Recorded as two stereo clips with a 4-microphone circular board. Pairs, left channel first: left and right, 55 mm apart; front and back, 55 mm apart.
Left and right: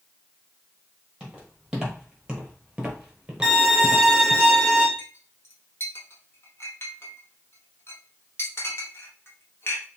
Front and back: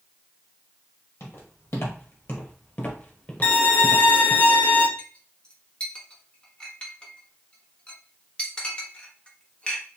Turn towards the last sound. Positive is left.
turn(degrees=70)